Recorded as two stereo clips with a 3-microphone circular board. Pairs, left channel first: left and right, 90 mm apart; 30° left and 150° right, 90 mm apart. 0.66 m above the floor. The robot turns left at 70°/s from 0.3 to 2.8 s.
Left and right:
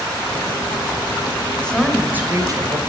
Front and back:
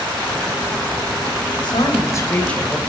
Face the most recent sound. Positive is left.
turn(degrees=-65)